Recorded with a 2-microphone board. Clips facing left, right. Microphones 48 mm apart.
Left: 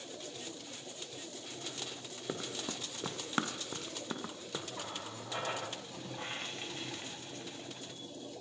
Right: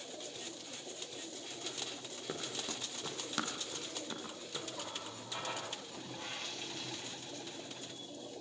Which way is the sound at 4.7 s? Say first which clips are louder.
Left 2 dB; 30° left (ahead or behind).